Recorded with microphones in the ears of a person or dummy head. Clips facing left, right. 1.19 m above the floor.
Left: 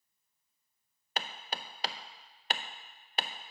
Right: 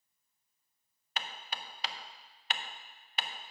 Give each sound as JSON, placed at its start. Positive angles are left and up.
{"t": 1.2, "sound": "hammering", "side_deg": 35, "distance_m": 0.6}